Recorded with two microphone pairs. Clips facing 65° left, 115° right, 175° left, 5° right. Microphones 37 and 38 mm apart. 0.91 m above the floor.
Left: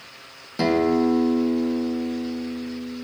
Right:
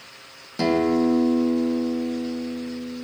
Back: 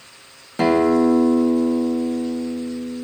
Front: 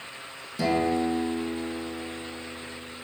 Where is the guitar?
145° left, 0.6 m.